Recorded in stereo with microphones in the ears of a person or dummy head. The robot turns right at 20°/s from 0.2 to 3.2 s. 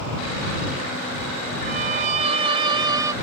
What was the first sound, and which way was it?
A violin, 50° right (ahead or behind).